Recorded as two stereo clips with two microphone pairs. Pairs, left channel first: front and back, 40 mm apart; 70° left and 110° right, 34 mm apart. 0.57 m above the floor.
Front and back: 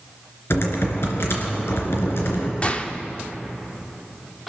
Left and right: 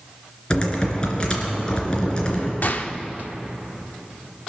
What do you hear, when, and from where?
0.5 s typing on a keyboard: 5° left, 2.5 m
2.6 s a gunshot: 55° left, 0.7 m